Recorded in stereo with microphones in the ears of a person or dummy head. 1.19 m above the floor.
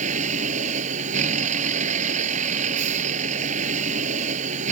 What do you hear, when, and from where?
0.0 s a vehicle: 50° right (ahead or behind)